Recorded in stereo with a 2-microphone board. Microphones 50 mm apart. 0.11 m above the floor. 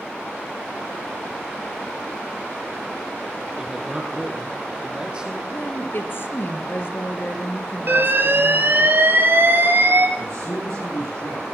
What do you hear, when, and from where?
3.6 s a man speaking: 10° right (ahead or behind), 3 m; by 5.4 s 20° right (ahead or behind), 4 m
5.5 s a woman speaking: 50° left (ahead or behind), 2.0 m
7.9 s an alarm: 50° right (ahead or behind), 2.5 m
10.2 s a man speaking: 85° left, 8.5 m